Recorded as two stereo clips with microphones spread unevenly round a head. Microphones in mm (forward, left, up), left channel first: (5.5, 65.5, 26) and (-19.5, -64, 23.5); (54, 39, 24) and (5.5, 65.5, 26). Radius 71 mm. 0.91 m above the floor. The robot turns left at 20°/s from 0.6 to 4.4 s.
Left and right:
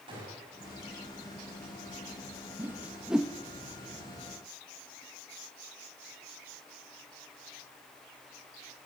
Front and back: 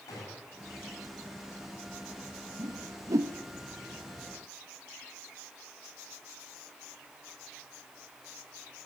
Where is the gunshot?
45° right, 8 m.